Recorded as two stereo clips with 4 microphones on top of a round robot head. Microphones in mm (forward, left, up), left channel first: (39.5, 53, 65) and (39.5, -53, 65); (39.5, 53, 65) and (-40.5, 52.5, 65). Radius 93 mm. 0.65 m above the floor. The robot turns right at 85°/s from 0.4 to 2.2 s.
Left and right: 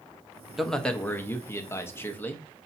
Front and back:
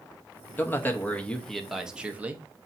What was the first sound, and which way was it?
A man speaking, straight ahead.